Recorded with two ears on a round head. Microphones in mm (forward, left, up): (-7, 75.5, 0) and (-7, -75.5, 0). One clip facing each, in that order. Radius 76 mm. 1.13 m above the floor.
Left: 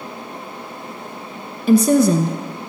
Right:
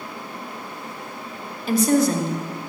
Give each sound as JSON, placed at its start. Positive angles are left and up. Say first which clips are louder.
{"t": 1.7, "sound": "a woman speaking", "louder": "left 5 dB", "side_deg": 75, "distance_m": 0.8}